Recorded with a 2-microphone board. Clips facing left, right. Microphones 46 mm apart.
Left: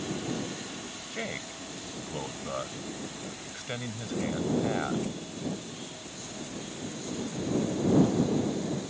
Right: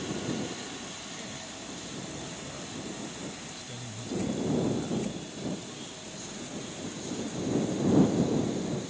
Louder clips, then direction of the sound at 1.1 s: Left 5 dB; 60° left (ahead or behind).